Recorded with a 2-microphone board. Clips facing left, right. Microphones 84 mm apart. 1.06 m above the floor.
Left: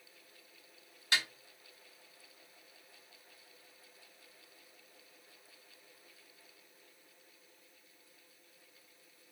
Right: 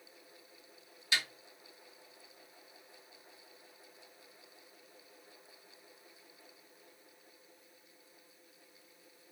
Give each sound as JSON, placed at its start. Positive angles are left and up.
{"t": 1.1, "sound": "a snare drum", "side_deg": 45, "distance_m": 1.2}